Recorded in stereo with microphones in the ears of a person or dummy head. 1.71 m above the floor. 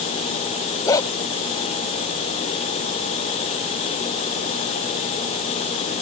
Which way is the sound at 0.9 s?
15° left (ahead or behind).